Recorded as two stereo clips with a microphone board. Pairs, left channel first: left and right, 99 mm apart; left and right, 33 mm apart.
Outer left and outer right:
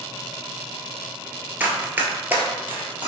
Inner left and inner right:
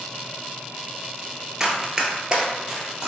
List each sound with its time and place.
1.6 s running footsteps: 20° right (ahead or behind), 0.7 m; by 3.1 s 15° right (ahead or behind), 1.2 m